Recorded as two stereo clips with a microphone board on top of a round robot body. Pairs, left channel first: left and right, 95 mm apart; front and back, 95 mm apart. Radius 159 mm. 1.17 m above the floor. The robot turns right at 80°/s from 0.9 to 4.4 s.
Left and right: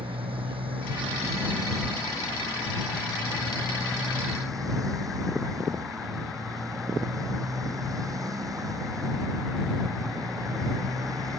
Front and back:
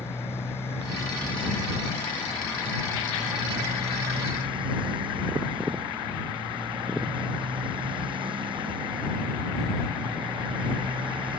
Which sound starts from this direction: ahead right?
A motorcycle, at 0.0 s.